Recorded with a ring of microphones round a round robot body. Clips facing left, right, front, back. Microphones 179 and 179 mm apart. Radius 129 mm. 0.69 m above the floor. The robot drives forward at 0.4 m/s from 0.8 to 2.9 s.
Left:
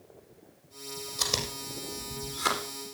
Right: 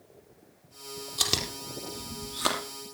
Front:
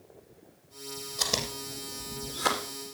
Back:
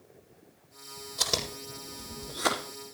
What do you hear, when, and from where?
1.2 s chewing: 100° right, 3.5 m; by 2.6 s 110° right, 3.5 m